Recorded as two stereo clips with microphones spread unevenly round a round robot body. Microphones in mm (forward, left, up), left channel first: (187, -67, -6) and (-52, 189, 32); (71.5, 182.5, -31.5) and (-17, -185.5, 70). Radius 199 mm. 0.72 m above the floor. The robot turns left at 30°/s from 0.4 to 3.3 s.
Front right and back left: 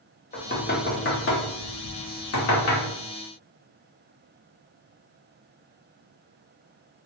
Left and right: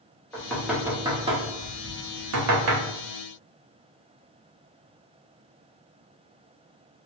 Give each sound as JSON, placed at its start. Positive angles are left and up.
{"t": 0.3, "sound": "knocking", "azimuth_deg": 10, "distance_m": 0.8}